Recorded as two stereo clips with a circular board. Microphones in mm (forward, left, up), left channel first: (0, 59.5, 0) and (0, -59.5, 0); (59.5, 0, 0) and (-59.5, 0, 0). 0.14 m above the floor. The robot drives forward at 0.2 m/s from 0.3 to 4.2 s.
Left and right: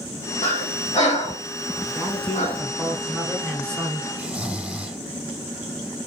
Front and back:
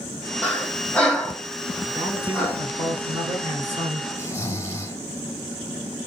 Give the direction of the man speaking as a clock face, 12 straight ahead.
6 o'clock.